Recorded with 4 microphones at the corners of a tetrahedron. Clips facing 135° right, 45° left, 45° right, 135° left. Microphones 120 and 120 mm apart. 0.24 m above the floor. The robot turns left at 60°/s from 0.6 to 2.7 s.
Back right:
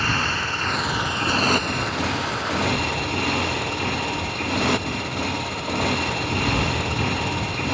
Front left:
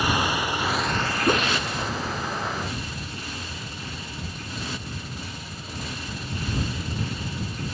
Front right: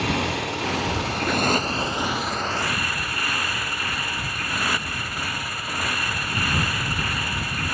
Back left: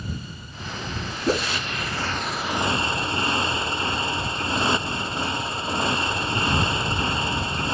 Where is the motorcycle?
35° right; by 7.7 s 160° right.